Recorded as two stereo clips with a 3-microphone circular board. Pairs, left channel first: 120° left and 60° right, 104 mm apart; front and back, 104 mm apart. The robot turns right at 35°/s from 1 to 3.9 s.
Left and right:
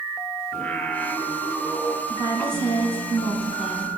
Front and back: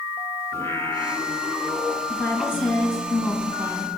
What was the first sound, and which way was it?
Singing, 50° left.